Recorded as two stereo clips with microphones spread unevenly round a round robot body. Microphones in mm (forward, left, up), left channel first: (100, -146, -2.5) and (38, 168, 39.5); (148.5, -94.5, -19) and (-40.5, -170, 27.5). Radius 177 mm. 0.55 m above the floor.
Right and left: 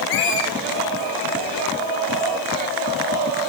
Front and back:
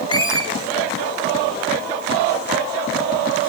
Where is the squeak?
90° right, 4 m.